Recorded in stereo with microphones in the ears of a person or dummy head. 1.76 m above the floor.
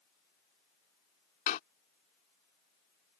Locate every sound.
1.5 s a door slam: 45° left (ahead or behind)